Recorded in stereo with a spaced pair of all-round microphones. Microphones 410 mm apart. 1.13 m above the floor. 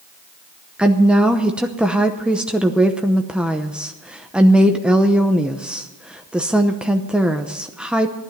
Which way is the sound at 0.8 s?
5° right (ahead or behind).